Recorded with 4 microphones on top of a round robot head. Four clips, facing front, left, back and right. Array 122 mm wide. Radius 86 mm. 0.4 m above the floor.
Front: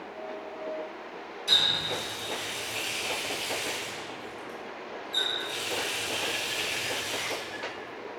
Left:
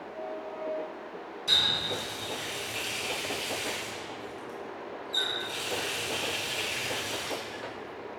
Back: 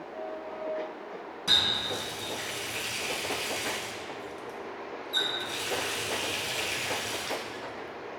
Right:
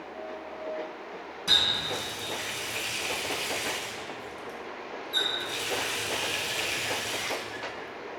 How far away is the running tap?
About 3 m.